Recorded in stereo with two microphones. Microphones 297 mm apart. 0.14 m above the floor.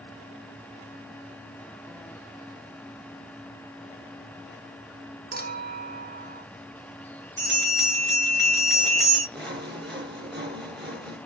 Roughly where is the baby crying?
No baby crying in this recording.